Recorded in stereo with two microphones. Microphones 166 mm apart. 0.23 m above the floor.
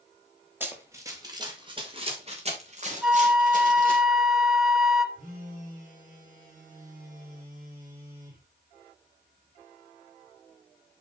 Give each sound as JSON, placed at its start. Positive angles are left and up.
{"t": 0.6, "sound": "running footsteps", "side_deg": -10, "distance_m": 3.0}
{"t": 3.0, "sound": "a flute", "side_deg": -5, "distance_m": 1.7}
{"t": 5.2, "sound": "a phone buzzing", "side_deg": -50, "distance_m": 7.0}